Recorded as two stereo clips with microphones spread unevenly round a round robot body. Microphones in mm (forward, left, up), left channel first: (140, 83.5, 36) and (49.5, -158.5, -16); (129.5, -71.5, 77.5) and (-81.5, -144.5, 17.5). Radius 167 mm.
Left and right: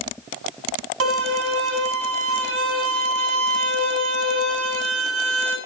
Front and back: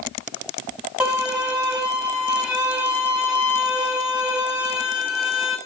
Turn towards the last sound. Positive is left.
turn(degrees=-75)